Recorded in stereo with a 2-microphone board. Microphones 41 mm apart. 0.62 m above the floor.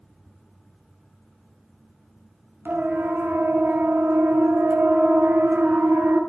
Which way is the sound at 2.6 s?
60° right (ahead or behind).